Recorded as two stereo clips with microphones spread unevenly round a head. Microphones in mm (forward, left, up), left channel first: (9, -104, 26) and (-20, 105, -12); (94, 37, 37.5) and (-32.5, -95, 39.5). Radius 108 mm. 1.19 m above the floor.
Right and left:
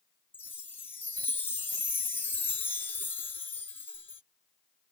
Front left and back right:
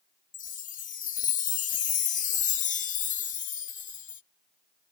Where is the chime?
Straight ahead.